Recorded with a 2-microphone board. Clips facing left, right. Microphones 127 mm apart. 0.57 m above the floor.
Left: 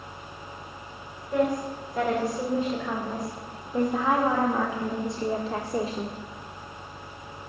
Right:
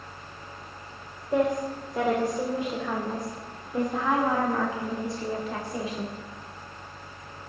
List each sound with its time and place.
1.3 s a woman speaking: 25° right (ahead or behind), 2.5 m; by 6.2 s 40° left (ahead or behind), 1.6 m